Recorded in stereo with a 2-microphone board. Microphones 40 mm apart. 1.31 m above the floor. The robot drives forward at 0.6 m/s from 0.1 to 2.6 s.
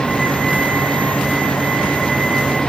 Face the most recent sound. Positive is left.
No sound to turn to.